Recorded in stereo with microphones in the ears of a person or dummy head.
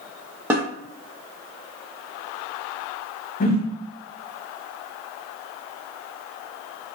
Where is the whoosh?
40° left (ahead or behind), 0.6 m.